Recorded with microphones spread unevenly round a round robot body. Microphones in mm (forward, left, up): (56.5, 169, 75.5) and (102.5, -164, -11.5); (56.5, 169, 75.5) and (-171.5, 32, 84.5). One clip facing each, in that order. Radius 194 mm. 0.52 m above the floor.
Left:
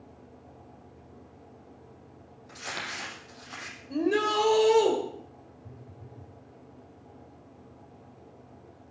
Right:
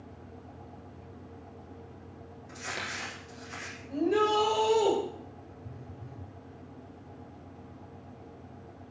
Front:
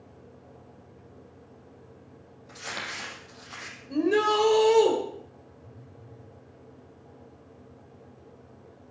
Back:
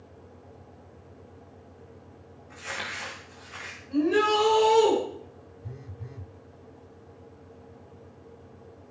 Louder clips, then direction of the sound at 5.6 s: Right 2 dB, back 8 dB; 155° right.